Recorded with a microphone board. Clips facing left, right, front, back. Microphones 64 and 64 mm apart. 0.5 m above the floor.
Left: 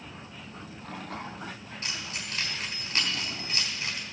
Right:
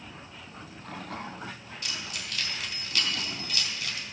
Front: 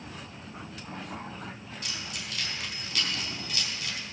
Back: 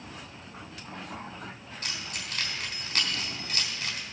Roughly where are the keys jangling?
Behind left.